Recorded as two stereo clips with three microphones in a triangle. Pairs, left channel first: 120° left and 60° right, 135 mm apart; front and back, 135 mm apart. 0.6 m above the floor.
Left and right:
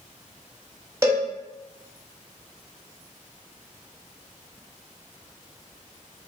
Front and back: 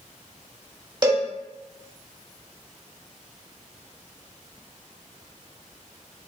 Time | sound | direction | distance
1.0 | a cowbell | 130° right | 0.7 m